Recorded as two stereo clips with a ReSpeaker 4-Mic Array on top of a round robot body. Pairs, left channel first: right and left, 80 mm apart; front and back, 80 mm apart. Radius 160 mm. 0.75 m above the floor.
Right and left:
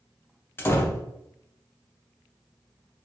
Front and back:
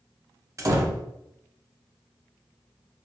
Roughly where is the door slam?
Behind right.